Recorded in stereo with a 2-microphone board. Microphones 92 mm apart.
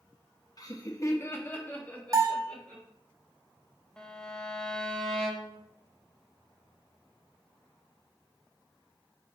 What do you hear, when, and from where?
0.6 s laughter: 45° left (ahead or behind), 1.1 m; by 2.8 s 10° left (ahead or behind), 2.5 m
2.1 s a bell: 35° right (ahead or behind), 1.8 m
4.0 s a violin: 10° left (ahead or behind), 0.9 m